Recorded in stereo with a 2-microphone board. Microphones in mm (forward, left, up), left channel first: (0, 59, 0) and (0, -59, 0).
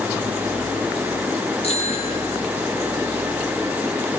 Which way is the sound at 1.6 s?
55° left (ahead or behind).